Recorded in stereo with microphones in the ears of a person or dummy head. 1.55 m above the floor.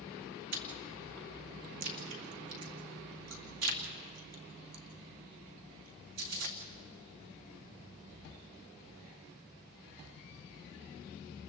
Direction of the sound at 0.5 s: 70° right (ahead or behind).